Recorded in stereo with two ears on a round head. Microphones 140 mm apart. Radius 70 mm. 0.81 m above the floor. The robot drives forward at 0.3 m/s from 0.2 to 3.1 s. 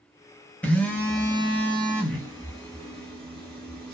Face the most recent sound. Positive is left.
turn(degrees=5)  # may be behind; listen again after turning